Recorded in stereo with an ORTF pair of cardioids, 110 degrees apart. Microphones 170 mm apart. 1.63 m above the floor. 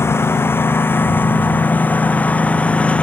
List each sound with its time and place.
0.0 s a lawn mower: 15° left; by 3.0 s 5° left